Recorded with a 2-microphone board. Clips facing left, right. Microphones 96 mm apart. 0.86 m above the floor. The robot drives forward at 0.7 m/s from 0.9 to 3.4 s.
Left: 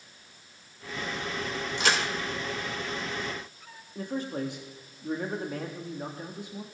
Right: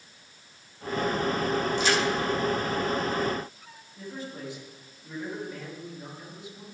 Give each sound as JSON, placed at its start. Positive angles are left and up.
{"t": 1.8, "sound": "a crack", "side_deg": 90, "distance_m": 1.7}
{"t": 4.0, "sound": "a man speaking", "side_deg": 60, "distance_m": 1.7}